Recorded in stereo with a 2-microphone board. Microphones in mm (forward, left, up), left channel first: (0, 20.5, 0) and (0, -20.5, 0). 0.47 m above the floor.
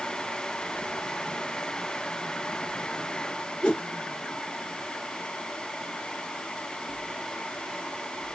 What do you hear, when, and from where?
3.6 s a whoosh: 20° left (ahead or behind), 2.5 m